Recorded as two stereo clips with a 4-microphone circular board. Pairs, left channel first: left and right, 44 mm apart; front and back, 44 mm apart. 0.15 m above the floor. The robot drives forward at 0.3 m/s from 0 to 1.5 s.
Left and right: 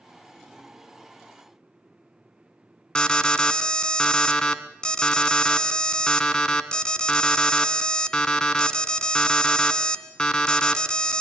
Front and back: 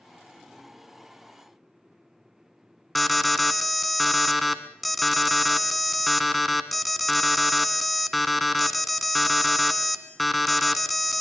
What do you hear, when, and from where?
3.0 s an alarm: 85° left, 1.4 m